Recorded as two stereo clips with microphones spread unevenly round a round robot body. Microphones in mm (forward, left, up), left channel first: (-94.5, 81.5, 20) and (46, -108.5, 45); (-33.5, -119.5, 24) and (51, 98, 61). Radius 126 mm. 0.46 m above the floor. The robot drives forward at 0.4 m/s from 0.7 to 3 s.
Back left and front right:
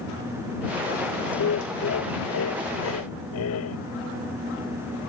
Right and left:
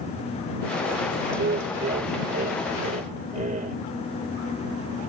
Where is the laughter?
115° left; by 3.8 s 130° left.